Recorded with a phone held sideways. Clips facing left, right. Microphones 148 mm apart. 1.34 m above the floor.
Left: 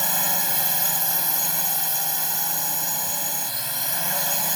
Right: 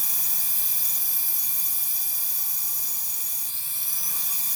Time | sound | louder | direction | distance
0.0 | a drone | left 18 dB | 75° left (ahead or behind) | ?